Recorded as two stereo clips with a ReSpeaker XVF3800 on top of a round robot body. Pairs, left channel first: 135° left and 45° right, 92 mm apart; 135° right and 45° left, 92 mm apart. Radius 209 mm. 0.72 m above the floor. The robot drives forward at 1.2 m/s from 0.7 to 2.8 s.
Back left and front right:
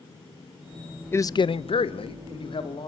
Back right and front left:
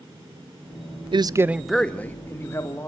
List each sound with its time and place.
1.1 s a man speaking: 70° left, 0.7 m; by 2.9 s 165° left, 1.9 m